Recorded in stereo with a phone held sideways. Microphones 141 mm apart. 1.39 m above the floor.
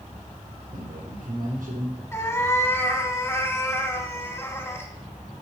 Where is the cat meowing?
20° left (ahead or behind), 1.3 m.